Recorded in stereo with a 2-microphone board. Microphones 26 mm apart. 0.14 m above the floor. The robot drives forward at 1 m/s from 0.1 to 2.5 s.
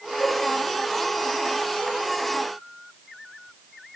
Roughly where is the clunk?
No clunk in this recording.